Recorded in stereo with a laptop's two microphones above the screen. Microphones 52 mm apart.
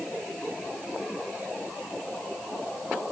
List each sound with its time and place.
Only background noise.